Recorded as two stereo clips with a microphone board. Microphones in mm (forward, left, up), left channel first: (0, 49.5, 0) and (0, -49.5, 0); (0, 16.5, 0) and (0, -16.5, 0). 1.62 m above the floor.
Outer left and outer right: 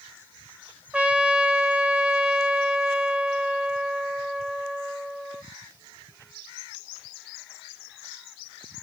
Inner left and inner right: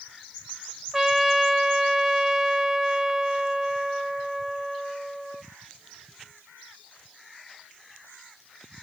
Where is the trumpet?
10° right (ahead or behind), 1.3 m.